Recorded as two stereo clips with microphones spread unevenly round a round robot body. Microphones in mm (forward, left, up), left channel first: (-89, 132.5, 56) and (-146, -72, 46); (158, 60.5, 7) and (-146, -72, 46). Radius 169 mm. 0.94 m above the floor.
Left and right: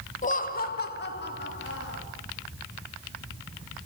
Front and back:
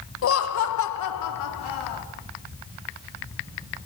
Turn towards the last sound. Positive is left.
turn(degrees=30)